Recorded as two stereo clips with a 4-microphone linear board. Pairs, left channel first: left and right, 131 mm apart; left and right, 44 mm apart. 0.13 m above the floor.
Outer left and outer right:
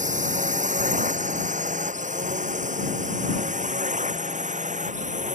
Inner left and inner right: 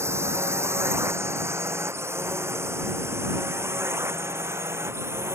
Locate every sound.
0.0 s a drone: 75° right (ahead or behind); by 5.3 s 70° right (ahead or behind)